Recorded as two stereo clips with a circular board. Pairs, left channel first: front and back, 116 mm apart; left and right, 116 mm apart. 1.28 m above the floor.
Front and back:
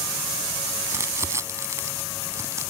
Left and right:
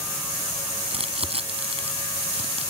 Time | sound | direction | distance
0.9 | crumpling | 115° right | ?